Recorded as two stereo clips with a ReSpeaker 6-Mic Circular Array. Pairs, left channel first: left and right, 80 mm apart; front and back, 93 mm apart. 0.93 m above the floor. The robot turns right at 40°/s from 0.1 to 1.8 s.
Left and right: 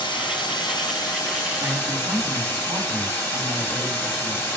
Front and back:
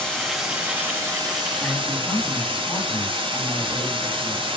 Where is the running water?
85° left, 3.5 m; by 4.6 s 150° left, 3.5 m.